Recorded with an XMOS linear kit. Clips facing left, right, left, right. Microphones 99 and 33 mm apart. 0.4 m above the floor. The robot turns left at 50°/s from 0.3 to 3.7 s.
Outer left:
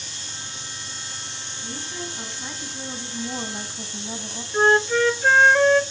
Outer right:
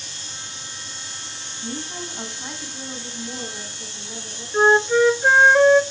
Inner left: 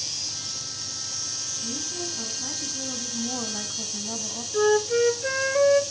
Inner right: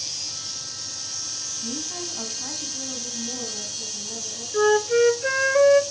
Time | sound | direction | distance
1.6 | a woman speaking | 130° right | 4 m
4.5 | a flute | 15° right (ahead or behind) | 0.5 m